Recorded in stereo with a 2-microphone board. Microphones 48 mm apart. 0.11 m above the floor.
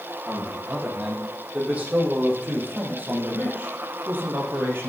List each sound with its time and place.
0.3 s a man speaking: 25° right (ahead or behind), 6.5 m; by 4.9 s 50° right (ahead or behind), 3 m